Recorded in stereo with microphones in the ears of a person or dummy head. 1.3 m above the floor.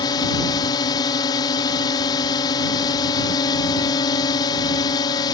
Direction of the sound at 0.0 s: 25° left (ahead or behind).